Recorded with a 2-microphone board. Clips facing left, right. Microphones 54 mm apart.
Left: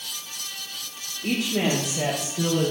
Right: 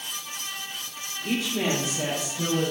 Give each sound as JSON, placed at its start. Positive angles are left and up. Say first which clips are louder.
{"t": 1.2, "sound": "a woman speaking", "louder": "left 2 dB", "side_deg": 75, "distance_m": 6.5}